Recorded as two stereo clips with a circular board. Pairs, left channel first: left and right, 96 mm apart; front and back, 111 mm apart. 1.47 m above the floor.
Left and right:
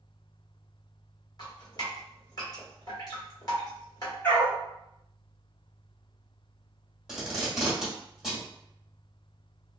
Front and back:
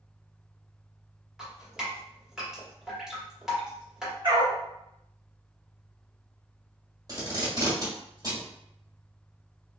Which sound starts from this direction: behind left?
A dog barking, at 4.2 s.